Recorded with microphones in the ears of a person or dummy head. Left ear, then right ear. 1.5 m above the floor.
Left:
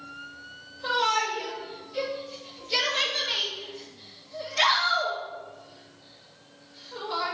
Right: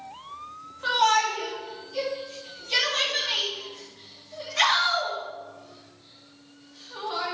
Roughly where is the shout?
Right.